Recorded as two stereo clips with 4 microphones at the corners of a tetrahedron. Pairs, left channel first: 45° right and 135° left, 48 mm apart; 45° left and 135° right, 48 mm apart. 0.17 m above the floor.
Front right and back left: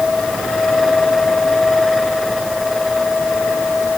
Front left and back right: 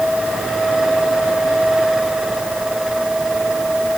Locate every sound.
Only background noise.